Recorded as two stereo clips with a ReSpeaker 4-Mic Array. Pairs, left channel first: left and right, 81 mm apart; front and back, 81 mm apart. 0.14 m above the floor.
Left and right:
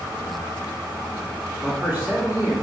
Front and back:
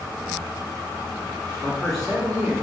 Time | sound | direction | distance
1.6 | a man speaking | 80° right | 1.2 m